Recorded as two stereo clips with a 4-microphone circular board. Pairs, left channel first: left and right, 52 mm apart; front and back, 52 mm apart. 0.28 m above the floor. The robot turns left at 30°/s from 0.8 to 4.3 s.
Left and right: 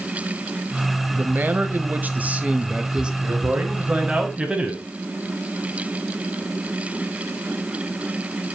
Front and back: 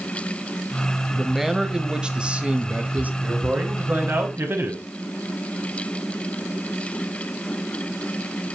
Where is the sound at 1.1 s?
90° right, 1.0 m; by 3.1 s 150° right, 1.0 m.